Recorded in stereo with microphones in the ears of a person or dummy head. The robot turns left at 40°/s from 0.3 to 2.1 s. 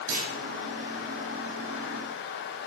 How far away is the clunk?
About 2.5 m.